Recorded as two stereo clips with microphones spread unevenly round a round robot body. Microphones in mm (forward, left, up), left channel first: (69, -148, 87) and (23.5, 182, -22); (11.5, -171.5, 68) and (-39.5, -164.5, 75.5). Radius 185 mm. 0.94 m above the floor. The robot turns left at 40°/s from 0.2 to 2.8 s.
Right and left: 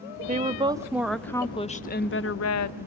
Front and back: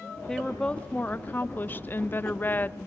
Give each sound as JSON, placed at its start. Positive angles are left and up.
{"t": 0.3, "sound": "a woman speaking", "azimuth_deg": 60, "distance_m": 0.9}